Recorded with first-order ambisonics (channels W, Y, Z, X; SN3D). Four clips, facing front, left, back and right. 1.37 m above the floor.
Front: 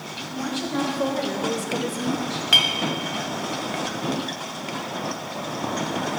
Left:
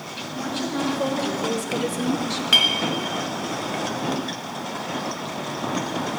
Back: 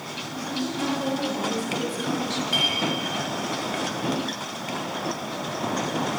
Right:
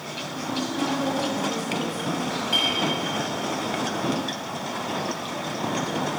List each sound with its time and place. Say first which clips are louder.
0.3 s a woman speaking: left 2 dB, front 3 dB; 35° left, 2.5 m; by 2.4 s 120° left, 0.7 m
2.5 s a clink: left 6 dB, front 6 dB; 45° left, 0.8 m